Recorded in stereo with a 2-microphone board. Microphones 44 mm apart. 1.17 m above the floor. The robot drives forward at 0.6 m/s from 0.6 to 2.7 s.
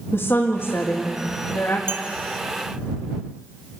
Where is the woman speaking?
75° left (ahead or behind), 2 m.